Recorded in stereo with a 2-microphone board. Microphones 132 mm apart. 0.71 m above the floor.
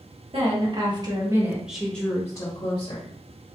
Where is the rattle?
I don't hear a rattle.